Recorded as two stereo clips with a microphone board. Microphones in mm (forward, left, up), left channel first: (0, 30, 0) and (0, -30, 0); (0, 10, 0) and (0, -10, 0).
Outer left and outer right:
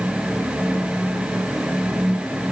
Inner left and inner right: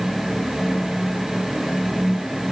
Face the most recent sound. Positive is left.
No sound to turn to.